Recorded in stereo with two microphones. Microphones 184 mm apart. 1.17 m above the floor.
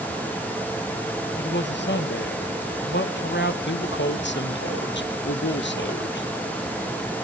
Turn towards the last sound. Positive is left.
turn(degrees=75)  # may be behind; listen again after turning